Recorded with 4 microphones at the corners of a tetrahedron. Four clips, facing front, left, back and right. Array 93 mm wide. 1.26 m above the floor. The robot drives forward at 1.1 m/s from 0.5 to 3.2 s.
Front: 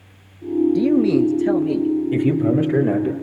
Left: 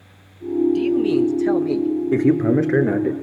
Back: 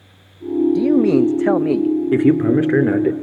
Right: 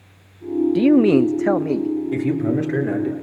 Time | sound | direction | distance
0.8 | a man speaking | 85° right | 0.6 m
2.1 | a man speaking | 150° left | 2.5 m